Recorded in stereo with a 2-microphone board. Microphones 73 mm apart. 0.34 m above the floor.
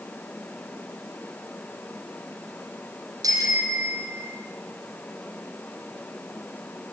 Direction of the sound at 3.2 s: 55° right (ahead or behind).